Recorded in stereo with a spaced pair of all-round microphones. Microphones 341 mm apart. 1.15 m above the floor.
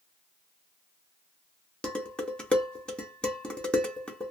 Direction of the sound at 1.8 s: 5° left (ahead or behind).